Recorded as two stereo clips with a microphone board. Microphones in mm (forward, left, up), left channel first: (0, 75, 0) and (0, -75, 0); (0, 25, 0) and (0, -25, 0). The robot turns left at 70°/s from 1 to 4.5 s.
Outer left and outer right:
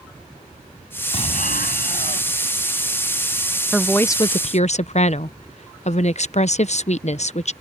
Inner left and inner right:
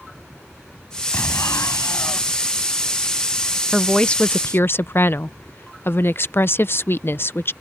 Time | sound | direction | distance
1.1 | an explosion | 135° left | ?
3.7 | a woman speaking | 175° right | ?